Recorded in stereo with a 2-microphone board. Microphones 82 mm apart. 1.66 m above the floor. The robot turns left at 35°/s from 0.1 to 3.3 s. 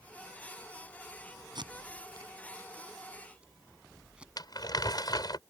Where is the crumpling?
60° left (ahead or behind).